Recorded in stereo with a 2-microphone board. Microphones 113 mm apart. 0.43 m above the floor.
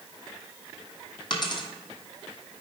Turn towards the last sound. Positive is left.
turn(degrees=45)  # may be behind; listen again after turning